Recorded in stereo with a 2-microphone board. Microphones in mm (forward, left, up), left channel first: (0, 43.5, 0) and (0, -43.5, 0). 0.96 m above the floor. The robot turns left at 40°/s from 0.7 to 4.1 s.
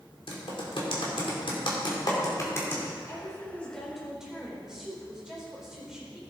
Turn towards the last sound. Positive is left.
turn(degrees=-5)